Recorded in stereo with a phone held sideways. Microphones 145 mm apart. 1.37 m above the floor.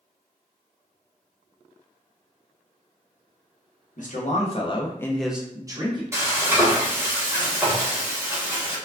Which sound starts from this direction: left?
A man speaking, at 4.0 s.